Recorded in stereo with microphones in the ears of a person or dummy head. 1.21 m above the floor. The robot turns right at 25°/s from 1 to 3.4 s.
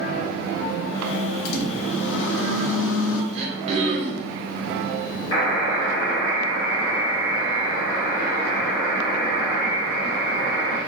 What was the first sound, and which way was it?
A microwave, 55° left.